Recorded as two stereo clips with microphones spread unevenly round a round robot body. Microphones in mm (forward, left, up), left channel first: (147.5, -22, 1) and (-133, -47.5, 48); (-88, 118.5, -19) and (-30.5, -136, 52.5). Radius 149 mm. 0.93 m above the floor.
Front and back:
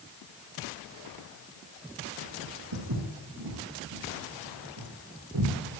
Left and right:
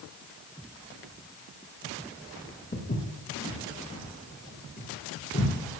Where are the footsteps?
160° left, 7.5 m; by 5.5 s 155° left, 6.5 m.